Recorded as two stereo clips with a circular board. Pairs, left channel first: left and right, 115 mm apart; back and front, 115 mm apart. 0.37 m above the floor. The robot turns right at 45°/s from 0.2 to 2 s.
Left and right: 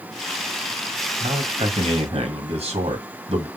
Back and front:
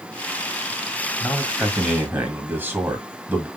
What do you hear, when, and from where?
1.2 s a man speaking: 110° right, 2.0 m; by 3.5 s 70° right, 2.0 m